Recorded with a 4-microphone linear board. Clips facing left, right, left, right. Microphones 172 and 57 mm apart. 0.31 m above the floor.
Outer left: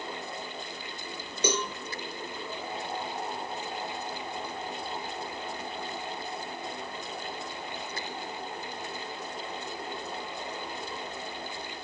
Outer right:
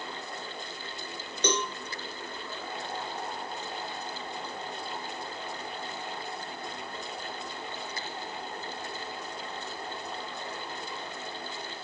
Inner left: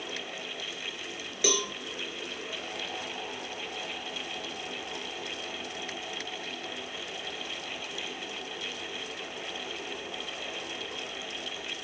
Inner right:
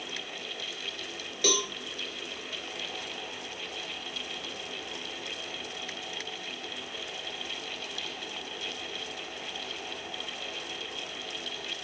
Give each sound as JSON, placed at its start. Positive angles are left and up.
{"t": 1.4, "sound": "a cowbell", "side_deg": 10, "distance_m": 2.5}